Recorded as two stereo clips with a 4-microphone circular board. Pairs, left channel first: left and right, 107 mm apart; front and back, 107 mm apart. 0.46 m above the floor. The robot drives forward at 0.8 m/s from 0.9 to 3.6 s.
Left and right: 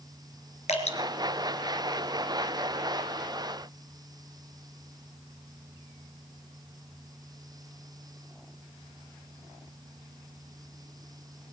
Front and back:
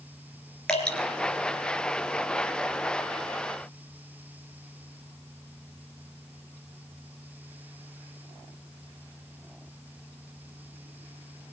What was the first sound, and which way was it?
Dripping, 85° left.